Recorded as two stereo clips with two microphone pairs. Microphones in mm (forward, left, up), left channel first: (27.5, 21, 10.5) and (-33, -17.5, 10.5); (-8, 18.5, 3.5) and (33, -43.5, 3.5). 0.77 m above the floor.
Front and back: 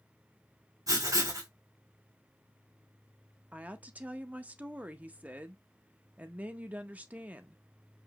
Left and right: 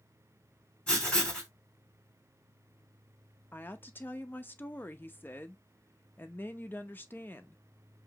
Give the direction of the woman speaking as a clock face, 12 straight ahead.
7 o'clock.